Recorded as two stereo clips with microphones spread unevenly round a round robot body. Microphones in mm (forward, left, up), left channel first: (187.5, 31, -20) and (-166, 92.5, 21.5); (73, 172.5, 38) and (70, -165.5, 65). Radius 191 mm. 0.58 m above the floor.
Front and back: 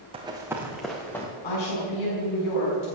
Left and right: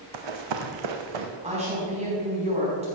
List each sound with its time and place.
0.1 s running footsteps: 115° right, 1.5 m; by 1.3 s 95° right, 2 m
1.4 s a woman speaking: 20° right, 4.5 m